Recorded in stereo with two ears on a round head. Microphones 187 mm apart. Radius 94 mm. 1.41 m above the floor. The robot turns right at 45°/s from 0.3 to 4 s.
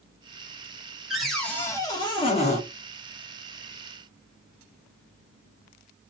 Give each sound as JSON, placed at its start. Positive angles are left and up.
{"t": 1.1, "sound": "a cupboard door", "azimuth_deg": -5, "distance_m": 1.0}